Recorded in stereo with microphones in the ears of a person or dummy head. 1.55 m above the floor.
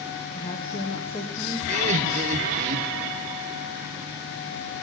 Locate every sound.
0.3 s a woman speaking: 35° left (ahead or behind), 1.2 m; by 1.6 s centre (ahead or behind), 1.1 m
1.7 s laughter: 45° right (ahead or behind), 1.0 m